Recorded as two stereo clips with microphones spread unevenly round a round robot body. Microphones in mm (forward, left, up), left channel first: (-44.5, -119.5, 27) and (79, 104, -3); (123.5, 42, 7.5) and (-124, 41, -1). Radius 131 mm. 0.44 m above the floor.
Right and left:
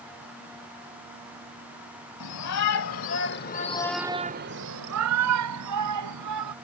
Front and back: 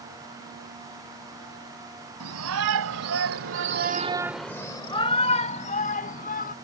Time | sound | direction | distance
2.2 | a shout | 145° right | ?